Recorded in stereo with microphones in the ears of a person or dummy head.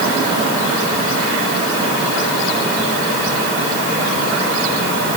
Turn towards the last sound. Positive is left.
No sound to turn to.